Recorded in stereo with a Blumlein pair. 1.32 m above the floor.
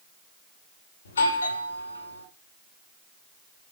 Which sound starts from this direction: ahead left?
A doorbell, at 1.1 s.